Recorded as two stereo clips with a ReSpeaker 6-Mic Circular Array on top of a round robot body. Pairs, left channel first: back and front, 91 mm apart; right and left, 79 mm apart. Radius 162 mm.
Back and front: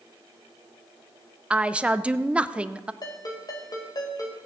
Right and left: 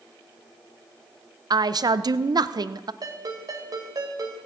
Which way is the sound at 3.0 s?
130° left.